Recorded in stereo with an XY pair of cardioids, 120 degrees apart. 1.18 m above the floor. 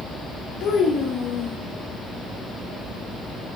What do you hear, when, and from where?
0.6 s a child speaking: 60° left, 1.0 m